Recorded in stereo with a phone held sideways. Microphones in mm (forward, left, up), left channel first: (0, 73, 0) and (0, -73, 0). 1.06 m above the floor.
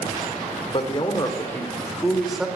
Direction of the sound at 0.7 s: 40° left (ahead or behind).